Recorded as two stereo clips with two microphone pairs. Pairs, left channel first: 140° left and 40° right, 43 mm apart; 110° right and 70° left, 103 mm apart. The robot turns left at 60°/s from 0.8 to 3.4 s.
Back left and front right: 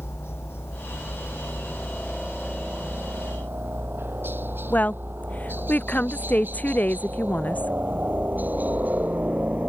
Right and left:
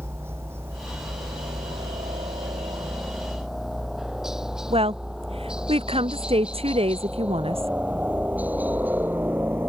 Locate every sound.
0.0 s a helicopter: 135° left; by 9.7 s 5° left
4.7 s a woman speaking: 90° left